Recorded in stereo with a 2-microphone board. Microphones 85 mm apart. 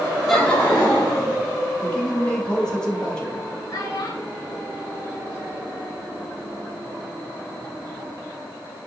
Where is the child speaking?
45° left (ahead or behind), 1.6 m.